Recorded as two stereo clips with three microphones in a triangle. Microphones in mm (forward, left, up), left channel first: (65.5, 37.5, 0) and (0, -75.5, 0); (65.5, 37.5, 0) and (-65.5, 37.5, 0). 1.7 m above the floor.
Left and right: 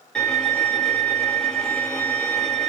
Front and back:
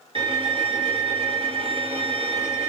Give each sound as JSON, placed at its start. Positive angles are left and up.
{"t": 0.1, "sound": "a violin", "azimuth_deg": 145, "distance_m": 1.3}